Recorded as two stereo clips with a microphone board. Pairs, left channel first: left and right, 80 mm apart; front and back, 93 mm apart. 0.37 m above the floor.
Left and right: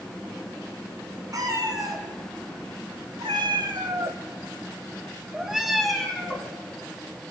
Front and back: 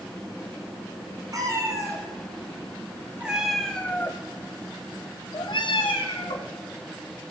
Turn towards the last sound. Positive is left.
turn(degrees=5)